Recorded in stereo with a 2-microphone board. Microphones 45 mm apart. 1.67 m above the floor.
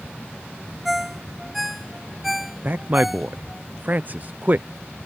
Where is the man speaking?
40° right (ahead or behind).